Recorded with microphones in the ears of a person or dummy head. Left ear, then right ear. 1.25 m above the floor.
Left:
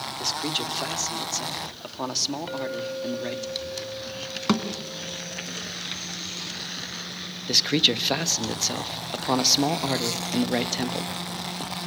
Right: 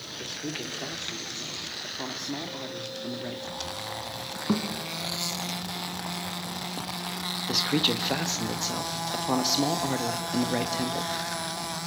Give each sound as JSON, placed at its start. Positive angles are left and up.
{"t": 0.2, "sound": "a man speaking", "side_deg": 80, "distance_m": 3.0}
{"t": 2.5, "sound": "a clink", "side_deg": 35, "distance_m": 3.5}
{"t": 4.5, "sound": "a thud", "side_deg": 65, "distance_m": 3.0}
{"t": 7.5, "sound": "a man speaking", "side_deg": 10, "distance_m": 1.4}